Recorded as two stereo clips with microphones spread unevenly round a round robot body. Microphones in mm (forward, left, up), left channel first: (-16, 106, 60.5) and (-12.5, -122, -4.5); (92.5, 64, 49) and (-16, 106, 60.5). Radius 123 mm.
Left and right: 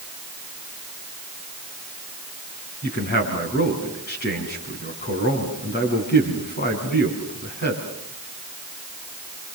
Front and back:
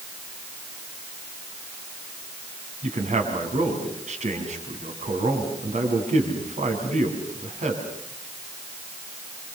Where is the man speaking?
140° left, 6 m.